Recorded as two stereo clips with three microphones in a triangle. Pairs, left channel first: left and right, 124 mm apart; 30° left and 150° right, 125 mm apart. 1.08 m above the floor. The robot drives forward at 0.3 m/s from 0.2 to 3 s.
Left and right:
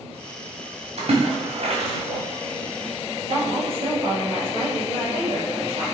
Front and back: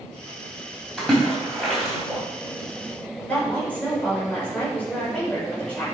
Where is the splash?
55° right, 3 m; by 2.2 s 60° right, 3 m.